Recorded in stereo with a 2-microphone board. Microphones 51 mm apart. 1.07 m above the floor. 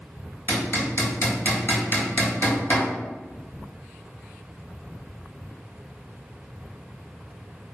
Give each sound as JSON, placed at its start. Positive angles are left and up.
{"t": 0.5, "sound": "hammering", "side_deg": 40, "distance_m": 1.1}